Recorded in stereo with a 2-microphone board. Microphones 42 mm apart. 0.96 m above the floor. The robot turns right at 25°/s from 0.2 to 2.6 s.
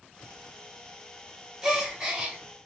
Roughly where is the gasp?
Centre.